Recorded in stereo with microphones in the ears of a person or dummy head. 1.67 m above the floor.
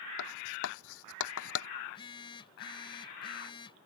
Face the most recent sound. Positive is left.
turn(degrees=20)  # may be behind; listen again after turning